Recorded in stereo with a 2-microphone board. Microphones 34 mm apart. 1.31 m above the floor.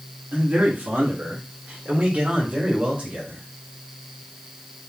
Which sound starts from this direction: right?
A man speaking, at 0.3 s.